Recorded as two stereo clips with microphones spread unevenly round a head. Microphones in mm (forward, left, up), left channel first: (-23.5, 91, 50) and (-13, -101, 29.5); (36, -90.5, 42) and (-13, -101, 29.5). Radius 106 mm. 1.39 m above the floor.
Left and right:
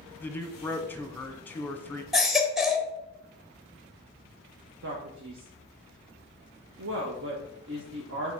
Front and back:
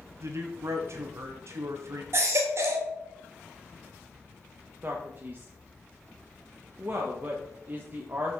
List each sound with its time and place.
0.2 s a man speaking: 175° left, 1.1 m
2.1 s a baby crying: 175° left, 0.8 m
4.8 s a man speaking: 110° right, 1.2 m